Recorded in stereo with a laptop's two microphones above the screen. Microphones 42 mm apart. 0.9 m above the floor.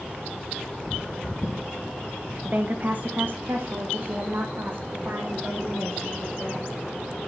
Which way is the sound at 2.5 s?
30° right (ahead or behind).